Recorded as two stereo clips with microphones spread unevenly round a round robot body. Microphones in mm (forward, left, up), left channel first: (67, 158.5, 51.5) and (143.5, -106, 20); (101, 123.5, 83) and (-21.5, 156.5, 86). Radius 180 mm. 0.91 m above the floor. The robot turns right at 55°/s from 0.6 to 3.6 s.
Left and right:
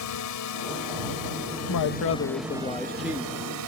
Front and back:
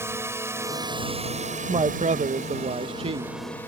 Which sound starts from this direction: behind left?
A woman speaking, at 1.7 s.